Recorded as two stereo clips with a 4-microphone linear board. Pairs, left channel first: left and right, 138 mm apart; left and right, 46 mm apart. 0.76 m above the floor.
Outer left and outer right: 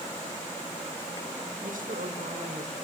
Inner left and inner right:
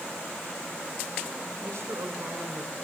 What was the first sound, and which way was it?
A woman speaking, 80° right.